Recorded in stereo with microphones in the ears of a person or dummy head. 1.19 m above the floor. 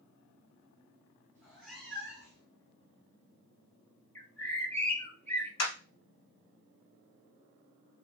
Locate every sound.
1.4 s a cat meowing: 15° right (ahead or behind), 1.0 m; by 2.5 s 15° left (ahead or behind), 2.0 m
4.2 s a bird: 10° left (ahead or behind), 0.8 m
5.6 s a clap: 75° left (ahead or behind), 1.8 m